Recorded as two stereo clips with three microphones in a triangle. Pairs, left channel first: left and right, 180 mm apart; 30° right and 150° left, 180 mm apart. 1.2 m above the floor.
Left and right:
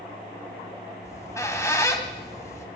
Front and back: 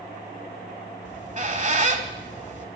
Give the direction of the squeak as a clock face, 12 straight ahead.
7 o'clock.